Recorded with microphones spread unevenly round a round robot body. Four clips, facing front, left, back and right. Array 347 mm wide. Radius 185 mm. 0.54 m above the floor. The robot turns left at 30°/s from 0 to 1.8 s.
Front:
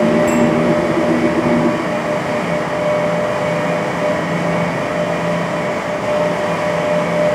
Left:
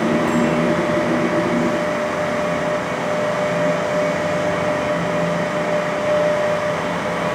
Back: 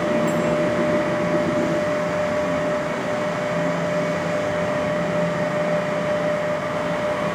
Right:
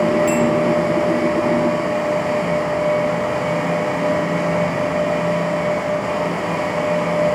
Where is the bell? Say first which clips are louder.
Right 1 dB, front 7 dB; 110° right, 0.7 m; by 0.6 s 115° right, 0.7 m.